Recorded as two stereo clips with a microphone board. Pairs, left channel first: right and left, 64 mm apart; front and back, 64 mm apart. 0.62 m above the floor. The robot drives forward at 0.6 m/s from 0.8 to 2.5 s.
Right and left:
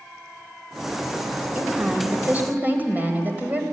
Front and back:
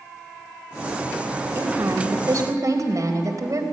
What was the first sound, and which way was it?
A woman speaking, 145° left.